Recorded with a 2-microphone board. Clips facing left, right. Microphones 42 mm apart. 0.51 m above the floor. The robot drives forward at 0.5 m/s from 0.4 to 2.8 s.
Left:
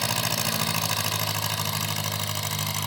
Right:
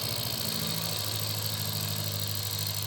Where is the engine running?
75° left (ahead or behind), 3 m; by 2.9 s 60° left (ahead or behind), 3.5 m.